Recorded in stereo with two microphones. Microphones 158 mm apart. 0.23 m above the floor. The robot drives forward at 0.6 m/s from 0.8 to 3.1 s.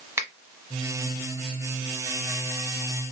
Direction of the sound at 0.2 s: 15° right (ahead or behind).